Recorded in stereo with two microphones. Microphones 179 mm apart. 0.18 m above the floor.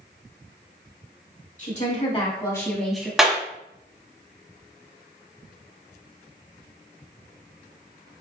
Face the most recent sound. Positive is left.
turn(degrees=-5)  # may be behind; listen again after turning